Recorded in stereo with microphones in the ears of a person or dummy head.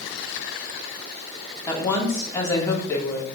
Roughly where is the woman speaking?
Centre.